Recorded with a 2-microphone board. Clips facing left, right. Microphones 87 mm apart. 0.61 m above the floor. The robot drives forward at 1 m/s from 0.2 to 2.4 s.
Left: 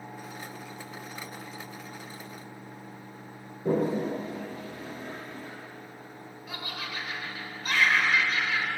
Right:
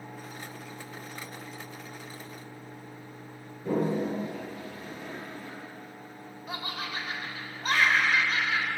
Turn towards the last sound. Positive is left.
turn(degrees=-35)  # may be behind; listen again after turning